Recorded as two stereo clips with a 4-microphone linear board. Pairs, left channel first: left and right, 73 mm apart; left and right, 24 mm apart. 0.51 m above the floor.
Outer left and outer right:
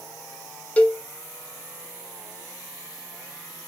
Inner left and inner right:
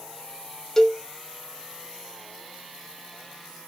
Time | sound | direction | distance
0.8 | a cowbell | 20° left (ahead or behind) | 0.6 m